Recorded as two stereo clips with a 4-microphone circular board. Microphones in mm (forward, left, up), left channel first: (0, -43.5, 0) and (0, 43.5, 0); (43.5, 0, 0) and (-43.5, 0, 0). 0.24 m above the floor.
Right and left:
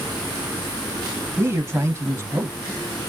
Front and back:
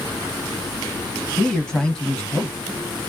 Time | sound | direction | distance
1.4 | a man speaking | 70° left | 1.1 m